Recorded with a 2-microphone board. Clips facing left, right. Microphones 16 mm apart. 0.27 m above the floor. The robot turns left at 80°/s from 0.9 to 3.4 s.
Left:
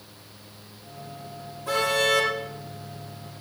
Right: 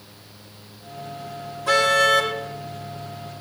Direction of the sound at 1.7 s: 140° right.